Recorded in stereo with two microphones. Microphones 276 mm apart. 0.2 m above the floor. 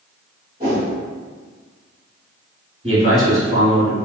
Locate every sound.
0.6 s a whoosh: 30° right (ahead or behind), 1.1 m
2.8 s a man speaking: 25° right (ahead or behind), 1.2 m